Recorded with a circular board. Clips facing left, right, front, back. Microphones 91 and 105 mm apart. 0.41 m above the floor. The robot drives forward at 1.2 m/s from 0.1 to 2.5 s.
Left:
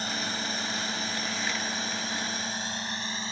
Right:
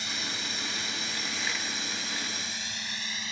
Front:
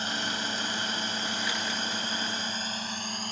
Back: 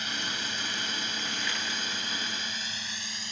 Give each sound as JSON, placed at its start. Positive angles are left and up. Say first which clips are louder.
{"t": 0.0, "sound": "a drone", "louder": "left 5 dB, front 4 dB", "azimuth_deg": 50}